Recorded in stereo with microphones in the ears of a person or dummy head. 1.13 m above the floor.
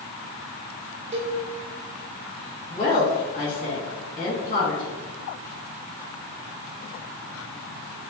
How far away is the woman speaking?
About 1.9 m.